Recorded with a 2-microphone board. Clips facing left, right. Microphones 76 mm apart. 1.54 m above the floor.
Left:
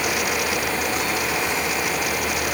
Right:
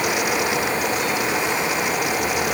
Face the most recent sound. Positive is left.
No sound to turn to.